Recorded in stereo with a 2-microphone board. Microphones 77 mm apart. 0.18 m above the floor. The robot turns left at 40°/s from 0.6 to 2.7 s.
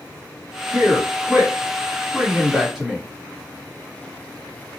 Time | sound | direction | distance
0.7 | a man speaking | 25° right (ahead or behind) | 1.3 m